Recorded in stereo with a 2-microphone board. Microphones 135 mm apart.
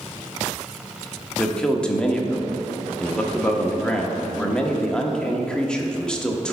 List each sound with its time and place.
1.4 s a man speaking: 5° left (ahead or behind), 0.9 m